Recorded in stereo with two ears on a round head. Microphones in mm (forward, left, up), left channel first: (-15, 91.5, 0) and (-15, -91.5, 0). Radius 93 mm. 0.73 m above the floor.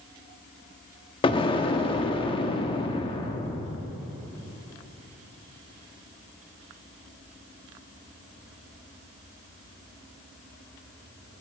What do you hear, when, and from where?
1.2 s an explosion: 25° left (ahead or behind), 1.1 m